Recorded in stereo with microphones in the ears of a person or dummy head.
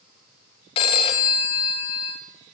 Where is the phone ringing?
30° left (ahead or behind), 0.7 m.